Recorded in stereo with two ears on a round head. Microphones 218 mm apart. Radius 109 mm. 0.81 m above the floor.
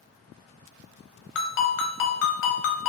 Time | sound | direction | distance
1.4 | a ringtone | 55° left (ahead or behind) | 0.6 m